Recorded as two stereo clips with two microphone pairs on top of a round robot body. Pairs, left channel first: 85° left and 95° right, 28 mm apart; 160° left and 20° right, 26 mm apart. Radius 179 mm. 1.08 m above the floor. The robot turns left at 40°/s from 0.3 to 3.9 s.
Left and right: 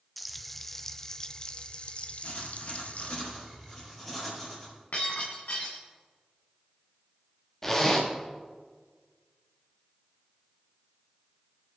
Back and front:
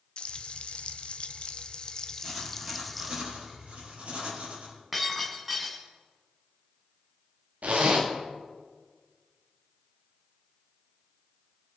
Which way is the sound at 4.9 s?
70° left.